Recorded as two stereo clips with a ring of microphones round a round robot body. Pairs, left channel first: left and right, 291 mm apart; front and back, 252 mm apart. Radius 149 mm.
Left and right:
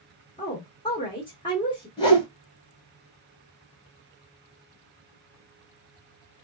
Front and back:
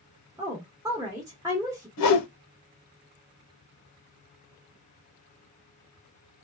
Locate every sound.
0.4 s a woman speaking: 130° left, 1.2 m
2.0 s a whoosh: 15° left, 1.0 m